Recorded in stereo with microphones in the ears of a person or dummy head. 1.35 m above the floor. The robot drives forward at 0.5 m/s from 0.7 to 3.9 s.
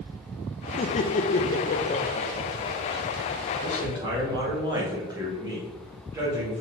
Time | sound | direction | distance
0.8 | laughter | 30° left (ahead or behind) | 0.6 m
3.6 | a man speaking | 25° right (ahead or behind) | 2 m